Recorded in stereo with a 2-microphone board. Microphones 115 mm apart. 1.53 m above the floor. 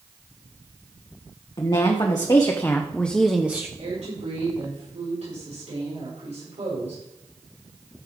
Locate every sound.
1.6 s a woman speaking: 45° left (ahead or behind), 1.5 m; by 3.7 s 20° right (ahead or behind), 0.8 m
3.8 s a woman speaking: 85° right, 6 m